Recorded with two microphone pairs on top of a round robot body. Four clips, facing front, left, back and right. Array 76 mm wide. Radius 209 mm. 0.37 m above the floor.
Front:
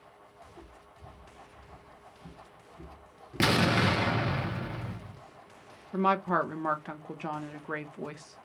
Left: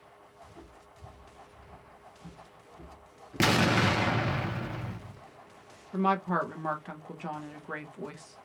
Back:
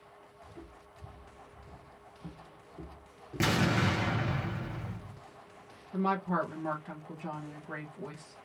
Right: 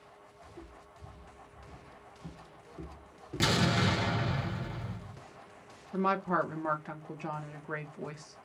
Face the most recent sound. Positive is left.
turn(degrees=-5)